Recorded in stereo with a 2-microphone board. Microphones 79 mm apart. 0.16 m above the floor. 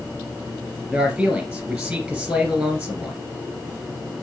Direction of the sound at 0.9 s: 10° right (ahead or behind).